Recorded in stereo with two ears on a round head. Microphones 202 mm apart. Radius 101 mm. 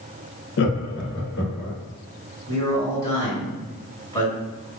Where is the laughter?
55° left (ahead or behind), 0.6 m; by 1.8 s 50° left (ahead or behind), 1.5 m.